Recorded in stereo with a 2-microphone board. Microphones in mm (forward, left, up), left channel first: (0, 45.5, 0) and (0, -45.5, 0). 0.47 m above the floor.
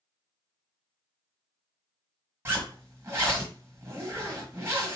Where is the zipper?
25° right (ahead or behind), 1.4 m.